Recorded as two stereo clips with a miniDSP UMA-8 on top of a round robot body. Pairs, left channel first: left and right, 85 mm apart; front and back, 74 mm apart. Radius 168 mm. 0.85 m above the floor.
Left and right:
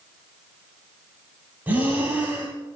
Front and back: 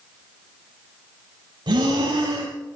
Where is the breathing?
160° right, 2 m.